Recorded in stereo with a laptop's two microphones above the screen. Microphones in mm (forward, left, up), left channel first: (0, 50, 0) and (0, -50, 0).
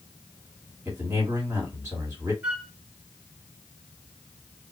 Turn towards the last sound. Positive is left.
turn(degrees=-15)  # may be behind; listen again after turning